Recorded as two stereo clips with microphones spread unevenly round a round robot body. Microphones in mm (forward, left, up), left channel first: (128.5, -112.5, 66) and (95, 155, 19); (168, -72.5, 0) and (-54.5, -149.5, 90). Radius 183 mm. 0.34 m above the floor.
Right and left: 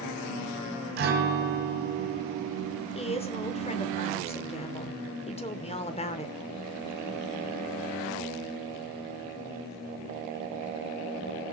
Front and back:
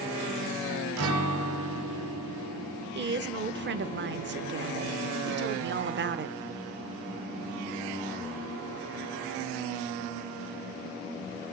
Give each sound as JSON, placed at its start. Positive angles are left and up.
{"t": 1.0, "sound": "a guitar", "azimuth_deg": 150, "distance_m": 1.2}
{"t": 3.0, "sound": "a woman speaking", "azimuth_deg": -140, "distance_m": 0.8}